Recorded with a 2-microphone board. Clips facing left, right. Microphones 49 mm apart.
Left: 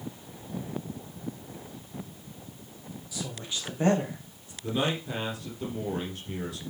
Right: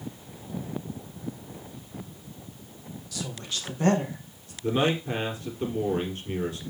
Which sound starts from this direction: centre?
A woman speaking, at 3.1 s.